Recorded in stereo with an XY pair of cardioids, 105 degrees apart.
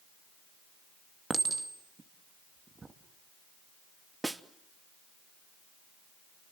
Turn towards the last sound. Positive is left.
turn(degrees=-15)